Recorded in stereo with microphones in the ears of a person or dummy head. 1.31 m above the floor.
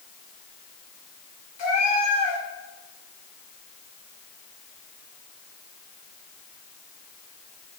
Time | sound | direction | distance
1.6 | a cat meowing | 35° left (ahead or behind) | 2.0 m